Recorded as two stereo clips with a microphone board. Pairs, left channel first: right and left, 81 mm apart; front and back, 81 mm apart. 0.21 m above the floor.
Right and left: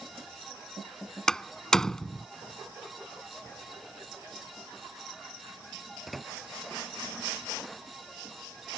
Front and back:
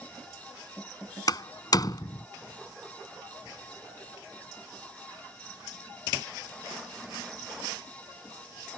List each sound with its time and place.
1.3 s a door slam: 10° right